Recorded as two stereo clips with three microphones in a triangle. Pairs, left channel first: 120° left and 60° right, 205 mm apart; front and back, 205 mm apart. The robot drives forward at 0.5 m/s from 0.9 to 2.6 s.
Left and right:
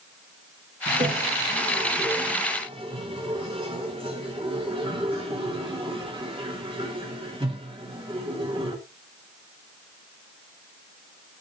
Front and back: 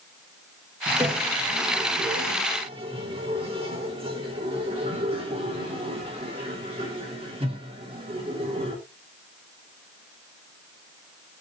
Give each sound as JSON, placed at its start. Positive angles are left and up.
{"t": 0.9, "sound": "a toilet flushing", "azimuth_deg": -100, "distance_m": 2.0}